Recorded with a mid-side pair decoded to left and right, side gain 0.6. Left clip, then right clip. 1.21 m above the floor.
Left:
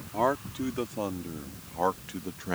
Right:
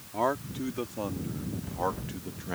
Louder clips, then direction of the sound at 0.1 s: Left 2 dB; 10° left.